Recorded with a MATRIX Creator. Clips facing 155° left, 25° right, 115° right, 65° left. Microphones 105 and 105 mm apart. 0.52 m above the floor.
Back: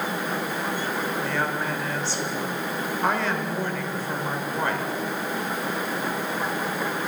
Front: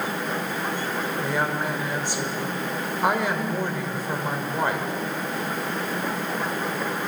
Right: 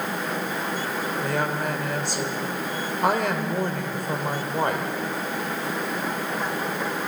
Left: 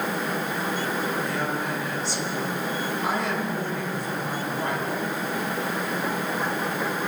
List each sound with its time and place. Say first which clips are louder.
1.2 s a woman speaking: front 1 dB, right 2 dB; 95° right, 1.7 m